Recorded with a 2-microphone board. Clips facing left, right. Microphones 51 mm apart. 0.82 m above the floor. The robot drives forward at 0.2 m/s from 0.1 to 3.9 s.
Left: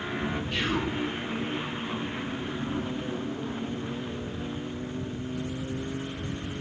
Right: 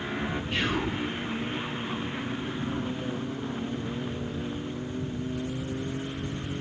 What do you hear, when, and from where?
0.5 s whispering: 25° right (ahead or behind), 0.9 m